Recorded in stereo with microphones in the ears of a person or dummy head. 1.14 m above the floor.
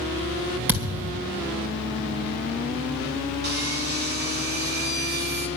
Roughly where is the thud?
Centre.